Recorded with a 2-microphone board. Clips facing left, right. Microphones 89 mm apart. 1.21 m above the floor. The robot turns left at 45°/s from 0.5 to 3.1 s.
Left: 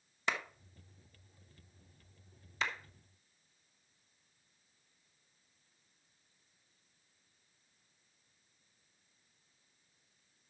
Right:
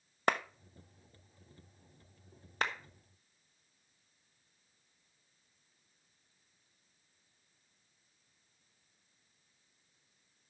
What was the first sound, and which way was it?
A clap, 50° right (ahead or behind).